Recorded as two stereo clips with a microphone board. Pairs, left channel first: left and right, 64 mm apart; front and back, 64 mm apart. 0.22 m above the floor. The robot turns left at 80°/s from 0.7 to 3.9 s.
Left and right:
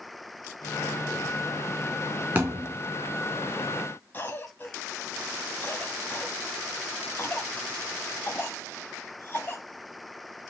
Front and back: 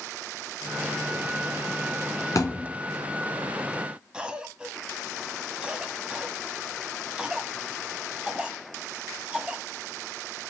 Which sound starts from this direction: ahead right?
A thud, at 2.4 s.